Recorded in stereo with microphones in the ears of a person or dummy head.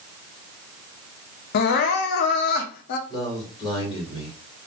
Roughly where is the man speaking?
Left.